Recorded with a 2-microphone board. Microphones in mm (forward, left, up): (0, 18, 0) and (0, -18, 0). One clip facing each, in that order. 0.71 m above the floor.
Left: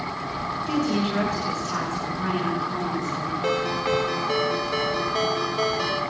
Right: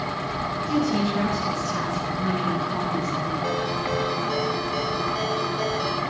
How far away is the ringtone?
About 1.8 m.